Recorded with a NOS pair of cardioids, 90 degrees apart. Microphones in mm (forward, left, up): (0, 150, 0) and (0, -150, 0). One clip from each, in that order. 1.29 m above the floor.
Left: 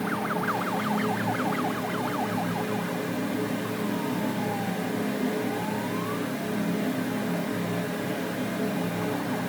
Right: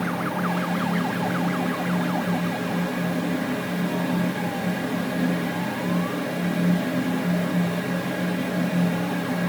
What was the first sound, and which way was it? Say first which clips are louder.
A fan: right 1 dB; 40° right.